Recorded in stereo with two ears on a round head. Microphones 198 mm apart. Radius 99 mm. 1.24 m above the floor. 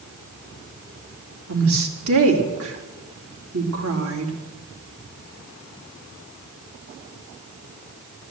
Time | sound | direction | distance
1.5 | a woman speaking | 65° right (ahead or behind) | 3 m